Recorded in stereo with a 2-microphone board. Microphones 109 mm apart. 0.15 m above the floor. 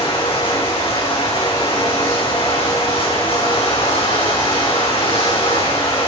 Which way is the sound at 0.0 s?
55° left (ahead or behind).